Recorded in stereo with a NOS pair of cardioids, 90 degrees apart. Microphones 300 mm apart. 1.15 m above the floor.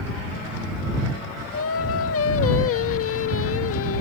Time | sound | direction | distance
1.5 | singing | 50° left | ?